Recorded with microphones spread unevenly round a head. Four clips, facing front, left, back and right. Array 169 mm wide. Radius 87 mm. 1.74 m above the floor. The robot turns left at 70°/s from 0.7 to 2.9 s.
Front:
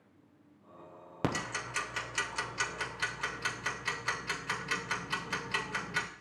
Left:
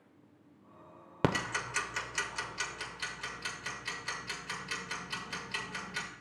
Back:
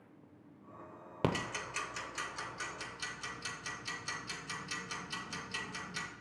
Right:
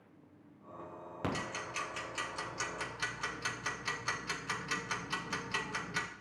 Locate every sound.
1.2 s ticking: 90° left, 0.7 m; by 6.1 s 25° right, 0.7 m